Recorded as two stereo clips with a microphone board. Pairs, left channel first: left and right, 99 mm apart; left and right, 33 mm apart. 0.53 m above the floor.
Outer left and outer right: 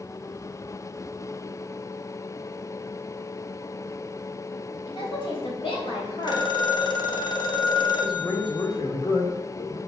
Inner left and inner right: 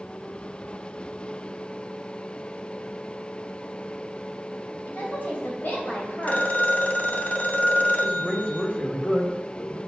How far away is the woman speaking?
About 3 m.